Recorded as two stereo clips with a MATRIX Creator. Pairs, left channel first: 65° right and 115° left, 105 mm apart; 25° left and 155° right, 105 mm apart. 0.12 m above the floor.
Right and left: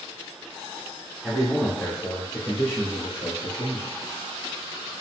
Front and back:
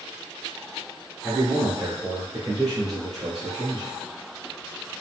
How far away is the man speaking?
About 1.1 m.